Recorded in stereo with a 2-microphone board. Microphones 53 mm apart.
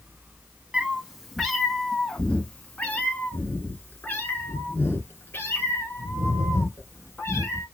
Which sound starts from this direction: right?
A cat meowing, at 0.7 s.